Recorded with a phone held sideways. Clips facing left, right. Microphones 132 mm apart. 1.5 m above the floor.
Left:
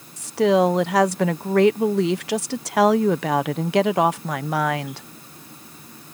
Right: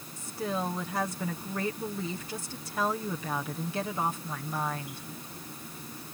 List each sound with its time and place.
0.2 s a woman speaking: 75° left (ahead or behind)